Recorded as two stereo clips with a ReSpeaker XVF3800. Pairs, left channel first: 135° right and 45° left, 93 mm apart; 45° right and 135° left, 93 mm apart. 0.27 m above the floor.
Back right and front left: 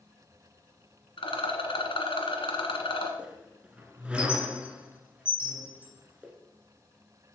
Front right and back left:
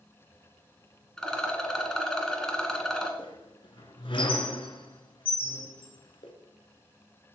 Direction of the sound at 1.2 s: 130° right.